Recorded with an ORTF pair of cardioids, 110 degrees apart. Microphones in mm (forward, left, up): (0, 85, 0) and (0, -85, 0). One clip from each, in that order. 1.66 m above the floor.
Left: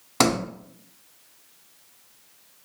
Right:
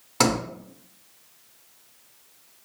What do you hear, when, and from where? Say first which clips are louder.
0.2 s a sliding door: left 1 dB; 20° left, 0.7 m